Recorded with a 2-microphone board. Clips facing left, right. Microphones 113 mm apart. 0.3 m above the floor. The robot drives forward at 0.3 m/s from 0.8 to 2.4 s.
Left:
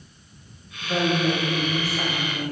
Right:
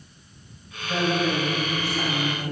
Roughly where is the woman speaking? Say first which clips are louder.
Left 1 dB; centre.